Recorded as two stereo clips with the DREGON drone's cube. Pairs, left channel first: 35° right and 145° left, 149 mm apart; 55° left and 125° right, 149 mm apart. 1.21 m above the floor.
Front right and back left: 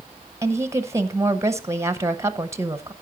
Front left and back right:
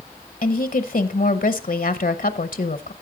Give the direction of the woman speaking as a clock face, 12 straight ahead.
9 o'clock.